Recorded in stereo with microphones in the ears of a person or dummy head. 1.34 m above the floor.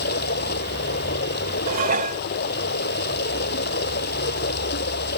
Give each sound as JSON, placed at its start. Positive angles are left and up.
{"t": 0.0, "sound": "running water", "side_deg": 55}
{"t": 1.7, "sound": "dishes clattering", "side_deg": -50}